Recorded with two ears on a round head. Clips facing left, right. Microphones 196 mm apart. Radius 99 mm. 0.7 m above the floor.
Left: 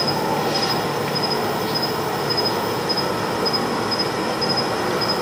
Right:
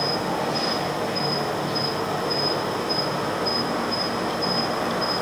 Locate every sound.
0.0 s an insect: 85° left, 1.2 m